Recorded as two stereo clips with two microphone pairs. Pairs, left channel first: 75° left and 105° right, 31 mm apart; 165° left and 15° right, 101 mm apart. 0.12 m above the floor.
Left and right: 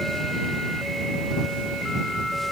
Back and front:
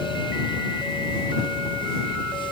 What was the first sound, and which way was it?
Only background noise.